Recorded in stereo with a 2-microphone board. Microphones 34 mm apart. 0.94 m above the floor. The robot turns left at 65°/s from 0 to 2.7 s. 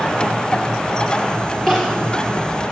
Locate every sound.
1.7 s crying: 5° left (ahead or behind), 6 m; by 2.1 s 35° left (ahead or behind), 6 m